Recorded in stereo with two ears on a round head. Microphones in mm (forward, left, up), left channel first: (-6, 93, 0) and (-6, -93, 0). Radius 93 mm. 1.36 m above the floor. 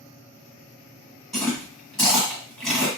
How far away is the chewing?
About 1.5 m.